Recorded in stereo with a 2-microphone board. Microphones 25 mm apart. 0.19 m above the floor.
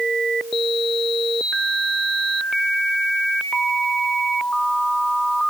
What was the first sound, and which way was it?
Only background noise.